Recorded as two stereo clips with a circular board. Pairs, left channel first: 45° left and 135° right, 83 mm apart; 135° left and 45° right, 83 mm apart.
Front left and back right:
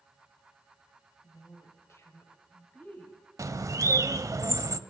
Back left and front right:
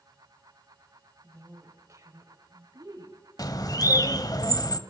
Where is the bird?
175° left, 0.6 m.